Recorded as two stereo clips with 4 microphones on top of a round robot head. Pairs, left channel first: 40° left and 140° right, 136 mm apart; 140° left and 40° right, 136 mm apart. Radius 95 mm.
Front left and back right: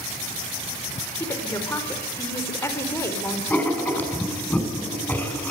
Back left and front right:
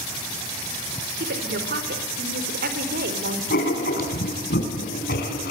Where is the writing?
120° left, 6 m.